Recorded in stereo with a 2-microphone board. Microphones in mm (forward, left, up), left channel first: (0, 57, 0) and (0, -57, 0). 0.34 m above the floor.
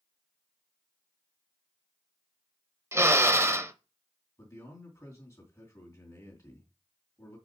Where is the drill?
25° right (ahead or behind), 0.9 m.